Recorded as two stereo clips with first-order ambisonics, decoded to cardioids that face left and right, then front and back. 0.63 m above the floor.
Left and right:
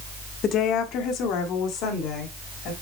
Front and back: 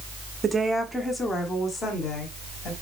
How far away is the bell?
No bell in this recording.